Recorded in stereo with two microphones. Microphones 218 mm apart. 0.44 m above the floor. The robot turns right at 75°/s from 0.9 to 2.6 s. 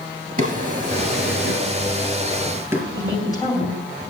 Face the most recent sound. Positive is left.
turn(degrees=15)  # may be behind; listen again after turning